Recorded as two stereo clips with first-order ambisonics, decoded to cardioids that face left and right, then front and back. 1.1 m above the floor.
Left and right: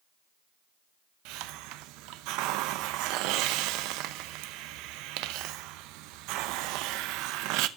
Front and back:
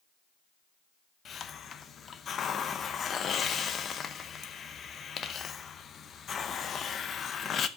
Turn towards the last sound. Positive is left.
turn(degrees=-65)